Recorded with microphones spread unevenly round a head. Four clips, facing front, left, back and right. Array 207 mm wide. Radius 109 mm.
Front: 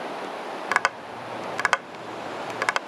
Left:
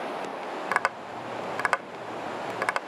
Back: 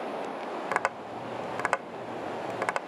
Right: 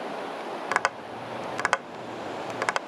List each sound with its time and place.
0.7 s tapping: 125° right